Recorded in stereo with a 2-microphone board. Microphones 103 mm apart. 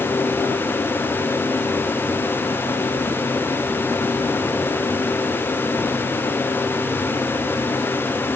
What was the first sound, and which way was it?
Only background noise.